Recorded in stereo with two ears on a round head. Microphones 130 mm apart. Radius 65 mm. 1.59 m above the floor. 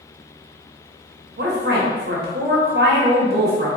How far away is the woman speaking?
About 0.8 m.